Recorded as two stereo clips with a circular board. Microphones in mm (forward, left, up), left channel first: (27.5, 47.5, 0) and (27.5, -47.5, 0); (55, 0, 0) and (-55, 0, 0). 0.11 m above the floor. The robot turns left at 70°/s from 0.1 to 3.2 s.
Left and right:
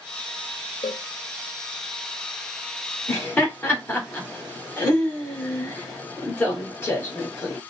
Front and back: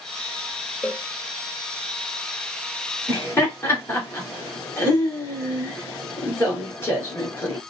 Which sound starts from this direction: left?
A cowbell, at 0.8 s.